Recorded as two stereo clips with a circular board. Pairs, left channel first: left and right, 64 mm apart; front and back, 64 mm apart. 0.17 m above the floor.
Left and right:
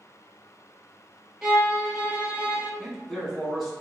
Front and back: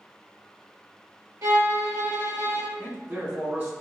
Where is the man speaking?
175° left, 1.3 m.